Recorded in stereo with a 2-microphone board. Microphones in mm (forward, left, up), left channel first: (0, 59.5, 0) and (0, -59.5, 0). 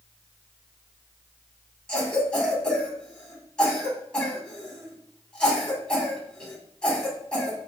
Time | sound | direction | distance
1.9 | a cough | 10° left (ahead or behind) | 1.8 m